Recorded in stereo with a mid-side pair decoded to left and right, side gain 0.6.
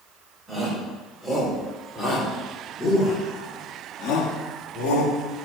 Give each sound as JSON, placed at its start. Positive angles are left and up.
{"t": 0.5, "sound": "a shout", "azimuth_deg": -5, "distance_m": 5.0}